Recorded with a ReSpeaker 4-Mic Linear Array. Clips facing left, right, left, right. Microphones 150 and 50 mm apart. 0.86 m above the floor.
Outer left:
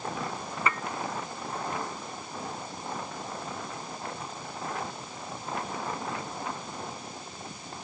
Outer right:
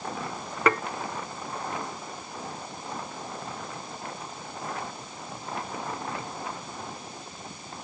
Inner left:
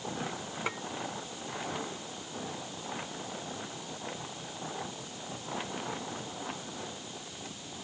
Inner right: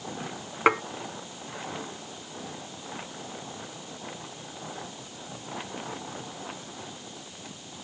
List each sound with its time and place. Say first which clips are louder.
0.7 s dishes clattering: outer right 8 dB, inner right 16 dB; 75° right (ahead or behind)